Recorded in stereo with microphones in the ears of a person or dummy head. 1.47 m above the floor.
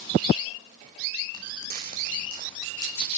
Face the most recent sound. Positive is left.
turn(degrees=-40)  # may be behind; listen again after turning